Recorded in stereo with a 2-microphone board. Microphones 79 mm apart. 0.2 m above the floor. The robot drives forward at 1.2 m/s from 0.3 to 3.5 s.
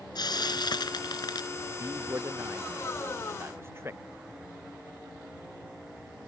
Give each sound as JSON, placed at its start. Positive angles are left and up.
{"t": 0.1, "sound": "frying", "side_deg": 60}
{"t": 1.8, "sound": "a man speaking", "side_deg": -35}